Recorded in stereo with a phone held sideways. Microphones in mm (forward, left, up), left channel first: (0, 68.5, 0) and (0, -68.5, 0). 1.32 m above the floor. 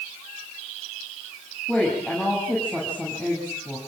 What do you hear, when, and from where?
1.7 s a woman speaking: 10° left (ahead or behind), 9 m